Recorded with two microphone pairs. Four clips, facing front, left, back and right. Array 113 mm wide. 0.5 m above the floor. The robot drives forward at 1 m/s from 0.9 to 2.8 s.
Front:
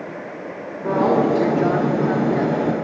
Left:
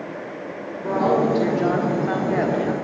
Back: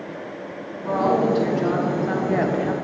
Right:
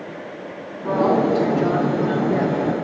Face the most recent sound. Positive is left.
turn(degrees=160)